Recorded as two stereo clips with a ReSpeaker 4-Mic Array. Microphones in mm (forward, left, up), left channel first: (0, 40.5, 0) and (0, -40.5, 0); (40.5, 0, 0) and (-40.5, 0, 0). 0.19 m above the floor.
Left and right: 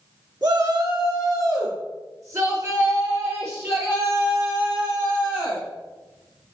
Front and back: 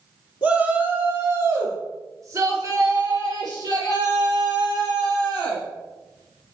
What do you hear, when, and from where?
0.4 s a shout: 110° right, 2.5 m; by 5.6 s 155° right, 6 m